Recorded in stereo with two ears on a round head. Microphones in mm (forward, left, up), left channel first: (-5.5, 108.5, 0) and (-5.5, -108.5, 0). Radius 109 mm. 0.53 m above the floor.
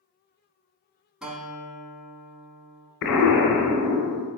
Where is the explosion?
80° left, 1.0 m.